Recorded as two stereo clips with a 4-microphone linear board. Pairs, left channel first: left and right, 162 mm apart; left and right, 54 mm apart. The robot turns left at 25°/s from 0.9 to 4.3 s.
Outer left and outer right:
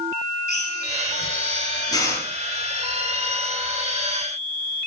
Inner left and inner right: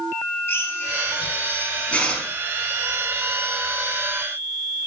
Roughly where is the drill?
Left.